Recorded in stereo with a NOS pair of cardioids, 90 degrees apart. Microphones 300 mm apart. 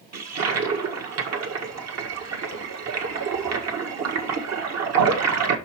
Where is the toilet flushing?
60° right, 1.6 m.